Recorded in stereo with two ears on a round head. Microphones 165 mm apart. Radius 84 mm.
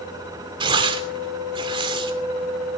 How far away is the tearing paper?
About 2.5 m.